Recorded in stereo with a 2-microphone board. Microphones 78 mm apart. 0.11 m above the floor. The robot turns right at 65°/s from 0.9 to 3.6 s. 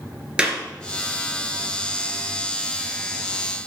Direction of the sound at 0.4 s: 15° right (ahead or behind).